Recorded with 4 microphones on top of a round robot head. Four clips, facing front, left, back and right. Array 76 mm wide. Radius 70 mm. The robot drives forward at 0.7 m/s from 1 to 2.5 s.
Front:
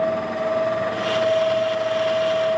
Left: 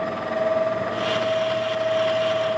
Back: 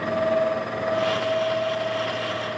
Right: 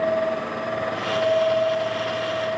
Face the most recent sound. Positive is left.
No sound to turn to.